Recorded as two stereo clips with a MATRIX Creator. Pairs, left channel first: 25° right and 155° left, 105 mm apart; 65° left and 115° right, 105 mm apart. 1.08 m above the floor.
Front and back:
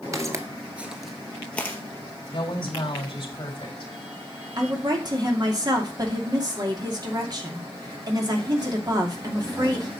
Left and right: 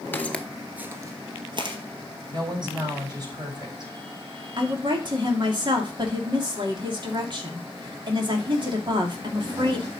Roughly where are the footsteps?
Behind left.